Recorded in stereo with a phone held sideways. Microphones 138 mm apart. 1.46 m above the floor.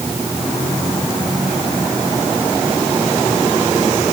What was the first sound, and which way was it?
Only background noise.